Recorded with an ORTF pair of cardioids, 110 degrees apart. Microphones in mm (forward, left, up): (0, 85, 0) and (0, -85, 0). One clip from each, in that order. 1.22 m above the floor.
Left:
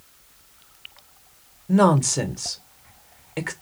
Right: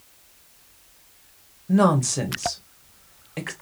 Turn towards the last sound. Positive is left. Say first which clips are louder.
# left 2 dB
turn(degrees=10)